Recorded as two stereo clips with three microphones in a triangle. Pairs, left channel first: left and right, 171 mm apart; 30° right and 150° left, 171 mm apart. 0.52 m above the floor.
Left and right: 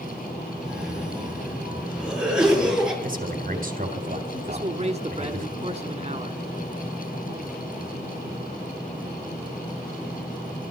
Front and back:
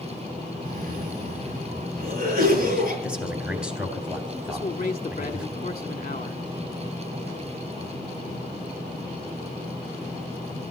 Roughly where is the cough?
Behind.